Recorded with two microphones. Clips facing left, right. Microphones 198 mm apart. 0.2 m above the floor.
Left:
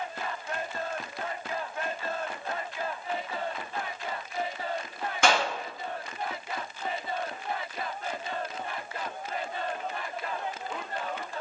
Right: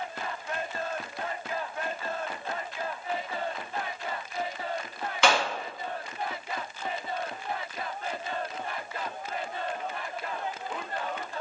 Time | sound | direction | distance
5.2 | a clap | 45° left (ahead or behind) | 1.6 m